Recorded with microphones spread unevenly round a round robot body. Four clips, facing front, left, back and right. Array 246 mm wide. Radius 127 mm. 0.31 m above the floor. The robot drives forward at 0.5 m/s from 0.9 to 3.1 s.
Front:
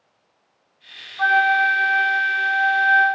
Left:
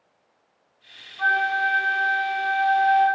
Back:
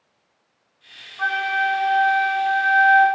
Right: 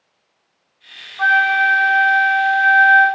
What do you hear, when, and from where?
1.2 s a flute: 70° right, 0.6 m; by 3.1 s 150° right, 1.0 m